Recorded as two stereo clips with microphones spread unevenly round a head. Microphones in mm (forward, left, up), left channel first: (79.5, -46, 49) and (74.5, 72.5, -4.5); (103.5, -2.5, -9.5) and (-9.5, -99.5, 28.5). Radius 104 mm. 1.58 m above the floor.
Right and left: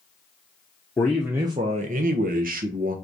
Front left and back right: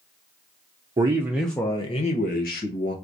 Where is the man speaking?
120° right, 0.6 m; by 3.0 s 85° left, 1.2 m.